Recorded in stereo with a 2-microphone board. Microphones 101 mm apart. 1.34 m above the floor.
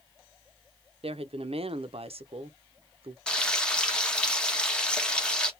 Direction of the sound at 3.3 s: 10° left (ahead or behind).